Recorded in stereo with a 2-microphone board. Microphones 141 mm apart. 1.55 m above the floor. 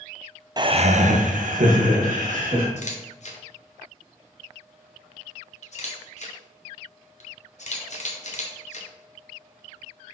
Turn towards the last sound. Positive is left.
turn(degrees=55)  # may be behind; listen again after turning